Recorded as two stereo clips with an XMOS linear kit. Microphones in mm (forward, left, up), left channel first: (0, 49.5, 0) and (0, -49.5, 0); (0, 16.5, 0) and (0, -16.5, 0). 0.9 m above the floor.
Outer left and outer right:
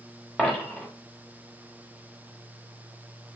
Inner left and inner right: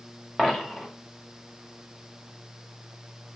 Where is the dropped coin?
10° left (ahead or behind), 0.7 m.